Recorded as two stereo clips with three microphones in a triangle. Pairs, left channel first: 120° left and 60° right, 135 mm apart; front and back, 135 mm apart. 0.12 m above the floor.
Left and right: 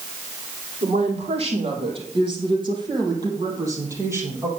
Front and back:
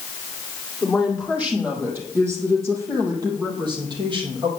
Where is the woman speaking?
95° right, 4 m; by 4.5 s 135° right, 3.5 m.